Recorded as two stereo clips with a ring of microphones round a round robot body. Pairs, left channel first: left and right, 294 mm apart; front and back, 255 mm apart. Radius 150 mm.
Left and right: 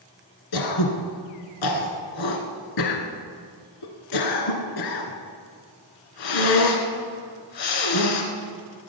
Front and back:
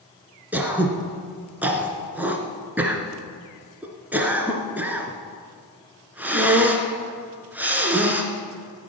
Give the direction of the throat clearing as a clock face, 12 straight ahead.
9 o'clock.